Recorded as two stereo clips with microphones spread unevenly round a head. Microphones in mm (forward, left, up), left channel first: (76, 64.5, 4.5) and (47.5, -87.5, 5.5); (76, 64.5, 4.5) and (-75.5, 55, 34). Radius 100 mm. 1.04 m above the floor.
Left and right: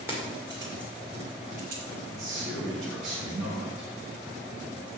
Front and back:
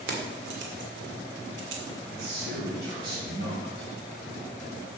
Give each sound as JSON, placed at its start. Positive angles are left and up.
{"t": 0.1, "sound": "keys jangling", "azimuth_deg": 180, "distance_m": 2.0}
{"t": 2.0, "sound": "a man speaking", "azimuth_deg": -125, "distance_m": 3.5}